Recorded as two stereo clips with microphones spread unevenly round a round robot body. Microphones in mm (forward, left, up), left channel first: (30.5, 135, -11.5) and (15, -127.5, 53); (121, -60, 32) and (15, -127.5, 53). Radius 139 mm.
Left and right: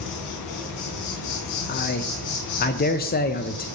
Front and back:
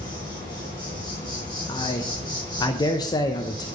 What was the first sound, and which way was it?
An insect, 105° left.